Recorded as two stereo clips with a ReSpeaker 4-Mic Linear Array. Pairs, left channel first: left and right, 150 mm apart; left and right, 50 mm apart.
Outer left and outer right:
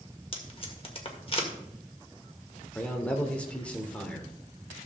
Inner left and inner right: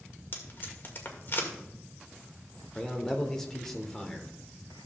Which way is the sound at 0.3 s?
40° left (ahead or behind).